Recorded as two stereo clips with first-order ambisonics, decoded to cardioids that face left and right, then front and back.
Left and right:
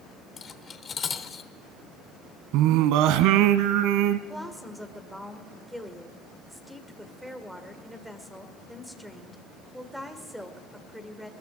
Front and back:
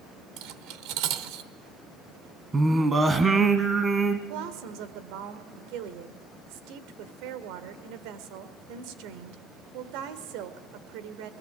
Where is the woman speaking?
Straight behind, 1.8 m.